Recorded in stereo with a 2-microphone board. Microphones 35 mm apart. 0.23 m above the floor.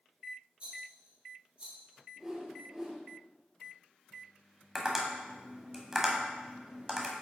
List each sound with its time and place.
0.6 s a rattle: 35° right (ahead or behind), 3.5 m
2.2 s a whoosh: 15° right (ahead or behind), 2.5 m
4.8 s tapping: 10° right (ahead or behind), 1.3 m